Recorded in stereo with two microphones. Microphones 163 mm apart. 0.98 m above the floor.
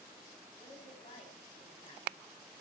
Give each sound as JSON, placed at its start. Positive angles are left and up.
{"t": 0.6, "sound": "a woman speaking", "side_deg": 45, "distance_m": 4.5}